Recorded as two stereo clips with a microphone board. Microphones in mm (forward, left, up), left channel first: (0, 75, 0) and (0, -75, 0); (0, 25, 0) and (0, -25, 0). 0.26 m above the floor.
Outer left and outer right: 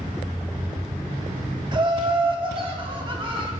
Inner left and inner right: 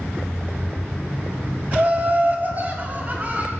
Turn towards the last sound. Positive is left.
turn(degrees=-35)  # may be behind; listen again after turning